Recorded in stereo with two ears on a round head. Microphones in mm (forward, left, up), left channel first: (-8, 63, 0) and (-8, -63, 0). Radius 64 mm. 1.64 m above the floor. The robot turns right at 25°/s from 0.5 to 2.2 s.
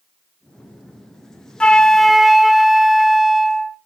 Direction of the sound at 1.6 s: 5° left (ahead or behind).